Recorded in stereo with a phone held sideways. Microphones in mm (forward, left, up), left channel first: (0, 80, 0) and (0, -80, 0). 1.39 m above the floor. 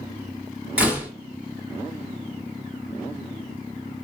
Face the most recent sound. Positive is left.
turn(degrees=-10)  # may be behind; listen again after turning